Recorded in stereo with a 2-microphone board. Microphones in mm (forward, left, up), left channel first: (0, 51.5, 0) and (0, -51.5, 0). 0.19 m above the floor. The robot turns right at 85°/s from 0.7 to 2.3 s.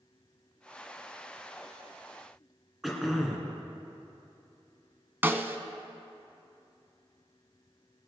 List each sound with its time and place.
2.8 s throat clearing: centre (ahead or behind), 2 m
5.2 s a snare drum: 20° right (ahead or behind), 0.7 m